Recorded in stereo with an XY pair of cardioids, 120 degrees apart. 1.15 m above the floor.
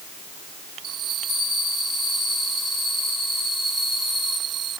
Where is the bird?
No bird in this recording.